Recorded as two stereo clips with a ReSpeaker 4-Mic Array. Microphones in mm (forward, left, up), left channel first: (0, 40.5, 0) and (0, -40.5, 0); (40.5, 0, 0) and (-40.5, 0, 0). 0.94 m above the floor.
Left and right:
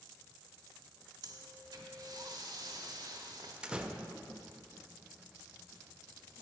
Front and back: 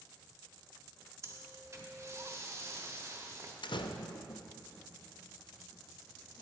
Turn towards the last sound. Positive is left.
turn(degrees=-10)